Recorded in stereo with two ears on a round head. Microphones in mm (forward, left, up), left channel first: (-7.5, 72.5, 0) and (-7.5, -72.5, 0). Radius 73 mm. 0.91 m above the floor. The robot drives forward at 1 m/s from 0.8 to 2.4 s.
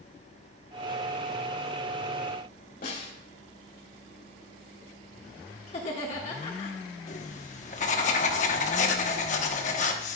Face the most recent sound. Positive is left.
turn(degrees=45)  # may be behind; listen again after turning